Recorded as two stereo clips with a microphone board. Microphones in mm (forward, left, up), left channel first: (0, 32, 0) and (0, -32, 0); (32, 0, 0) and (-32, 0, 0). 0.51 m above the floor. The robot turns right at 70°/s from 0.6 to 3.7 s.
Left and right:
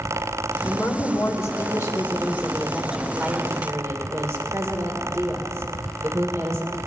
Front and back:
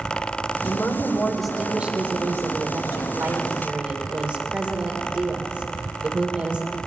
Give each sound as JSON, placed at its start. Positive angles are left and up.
{"t": 0.7, "sound": "a woman speaking", "azimuth_deg": 35, "distance_m": 2.0}